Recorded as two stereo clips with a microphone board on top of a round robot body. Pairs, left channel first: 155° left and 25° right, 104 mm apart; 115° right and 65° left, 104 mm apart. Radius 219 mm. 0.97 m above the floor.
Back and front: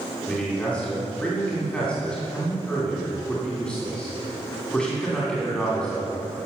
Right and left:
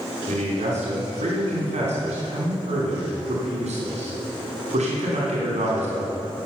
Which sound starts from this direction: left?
A man speaking, at 0.3 s.